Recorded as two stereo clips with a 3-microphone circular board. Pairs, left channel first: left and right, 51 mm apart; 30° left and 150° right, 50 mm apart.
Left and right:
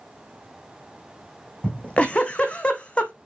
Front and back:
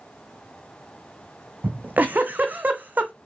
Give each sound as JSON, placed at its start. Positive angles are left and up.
{"t": 1.6, "sound": "a giggle", "azimuth_deg": 155, "distance_m": 1.4}